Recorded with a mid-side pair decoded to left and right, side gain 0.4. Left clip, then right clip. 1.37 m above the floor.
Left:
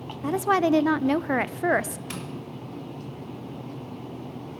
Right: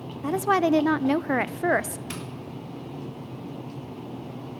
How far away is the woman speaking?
About 0.5 m.